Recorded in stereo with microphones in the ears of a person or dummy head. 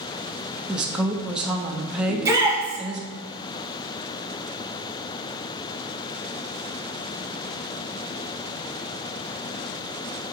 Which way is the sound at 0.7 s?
5° right (ahead or behind).